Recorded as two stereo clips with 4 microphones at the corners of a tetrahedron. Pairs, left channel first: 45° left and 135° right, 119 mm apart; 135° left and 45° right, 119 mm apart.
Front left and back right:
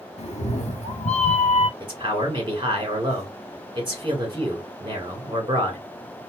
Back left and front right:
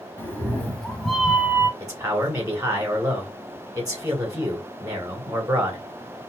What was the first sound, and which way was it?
A cat meowing, 65° left.